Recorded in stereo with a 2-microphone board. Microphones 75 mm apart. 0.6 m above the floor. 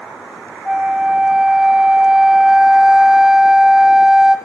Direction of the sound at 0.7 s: 5° right (ahead or behind).